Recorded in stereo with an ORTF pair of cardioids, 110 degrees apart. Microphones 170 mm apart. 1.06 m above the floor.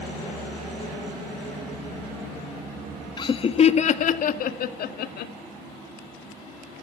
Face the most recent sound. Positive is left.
turn(degrees=70)